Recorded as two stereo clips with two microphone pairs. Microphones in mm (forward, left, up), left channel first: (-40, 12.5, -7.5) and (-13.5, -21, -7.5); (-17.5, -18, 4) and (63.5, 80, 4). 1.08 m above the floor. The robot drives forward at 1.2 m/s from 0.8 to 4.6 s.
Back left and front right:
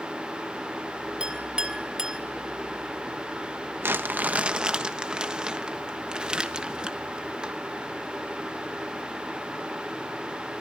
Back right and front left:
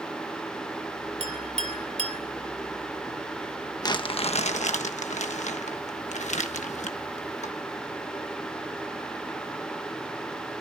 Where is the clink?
20° left, 3.5 m; by 2.2 s 30° left, 2.5 m.